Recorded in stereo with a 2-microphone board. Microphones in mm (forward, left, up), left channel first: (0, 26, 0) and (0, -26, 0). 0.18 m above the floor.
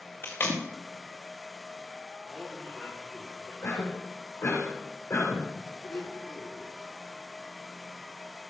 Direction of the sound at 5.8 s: 55° left (ahead or behind).